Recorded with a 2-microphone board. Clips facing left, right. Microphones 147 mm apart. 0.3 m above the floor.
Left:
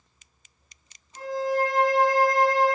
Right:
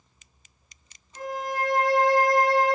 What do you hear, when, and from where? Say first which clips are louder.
1.1 s a violin: left 5 dB; 70° right (ahead or behind), 0.7 m